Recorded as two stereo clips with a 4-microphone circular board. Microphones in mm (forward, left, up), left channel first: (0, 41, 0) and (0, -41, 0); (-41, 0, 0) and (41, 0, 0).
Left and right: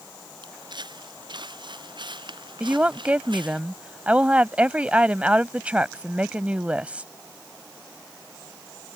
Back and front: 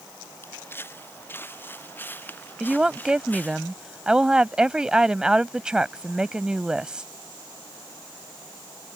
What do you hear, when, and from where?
0.4 s footsteps: 120° right; by 3.6 s 110° right
2.6 s a woman speaking: 55° right